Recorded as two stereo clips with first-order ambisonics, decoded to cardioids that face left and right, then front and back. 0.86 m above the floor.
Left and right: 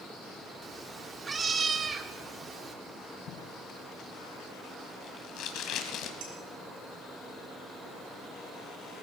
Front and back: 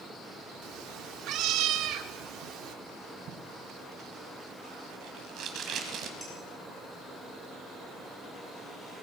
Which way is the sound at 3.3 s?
135° left.